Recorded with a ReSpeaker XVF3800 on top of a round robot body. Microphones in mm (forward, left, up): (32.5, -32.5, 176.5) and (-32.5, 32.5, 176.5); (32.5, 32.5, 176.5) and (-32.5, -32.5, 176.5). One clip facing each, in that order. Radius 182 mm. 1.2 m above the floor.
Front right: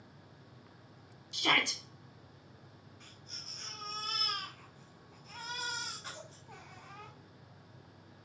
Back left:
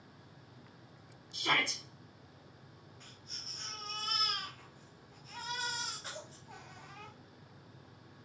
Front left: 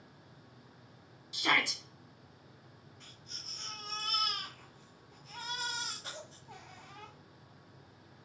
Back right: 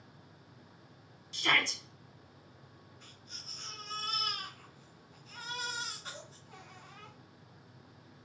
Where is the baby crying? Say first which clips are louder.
Even, even; 45° left, 1.4 m.